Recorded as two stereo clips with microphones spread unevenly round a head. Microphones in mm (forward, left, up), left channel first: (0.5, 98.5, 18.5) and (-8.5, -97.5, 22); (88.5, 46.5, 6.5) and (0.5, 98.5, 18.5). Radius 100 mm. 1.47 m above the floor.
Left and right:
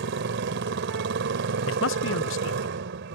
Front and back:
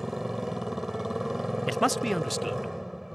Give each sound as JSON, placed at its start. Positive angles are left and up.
{"t": 0.0, "sound": "a motorcycle", "azimuth_deg": -125}
{"t": 1.7, "sound": "a man speaking", "azimuth_deg": 60}